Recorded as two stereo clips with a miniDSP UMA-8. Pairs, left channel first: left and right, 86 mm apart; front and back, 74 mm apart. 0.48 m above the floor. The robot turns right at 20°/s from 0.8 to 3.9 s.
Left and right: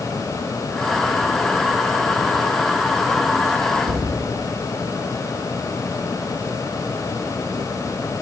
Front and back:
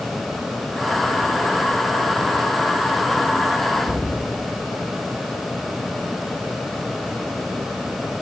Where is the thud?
95° right, 6.5 m.